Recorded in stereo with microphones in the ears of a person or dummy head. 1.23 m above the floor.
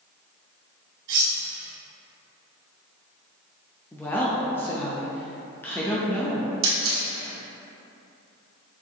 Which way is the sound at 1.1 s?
70° right (ahead or behind).